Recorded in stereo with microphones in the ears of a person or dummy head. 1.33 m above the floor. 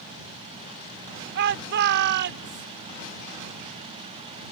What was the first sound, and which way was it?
A shout, 55° right (ahead or behind).